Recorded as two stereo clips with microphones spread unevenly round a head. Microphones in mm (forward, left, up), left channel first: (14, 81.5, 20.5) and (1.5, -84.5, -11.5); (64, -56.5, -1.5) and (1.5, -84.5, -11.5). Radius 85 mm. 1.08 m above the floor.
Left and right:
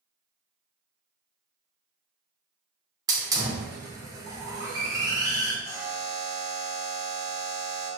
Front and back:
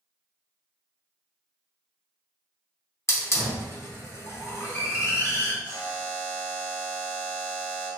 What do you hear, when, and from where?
3.1 s a hiss: 25° right, 0.9 m
5.6 s a buzzer: 35° left, 1.8 m